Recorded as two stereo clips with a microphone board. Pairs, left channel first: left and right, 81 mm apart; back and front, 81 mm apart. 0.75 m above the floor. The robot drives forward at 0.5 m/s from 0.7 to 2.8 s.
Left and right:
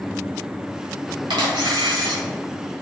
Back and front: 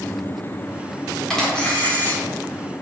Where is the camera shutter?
95° right, 1.4 m; by 2.2 s 115° right, 1.5 m.